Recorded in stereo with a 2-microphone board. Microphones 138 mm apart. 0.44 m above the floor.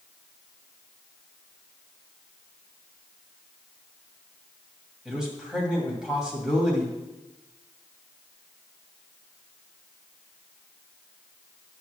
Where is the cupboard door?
I don't hear a cupboard door.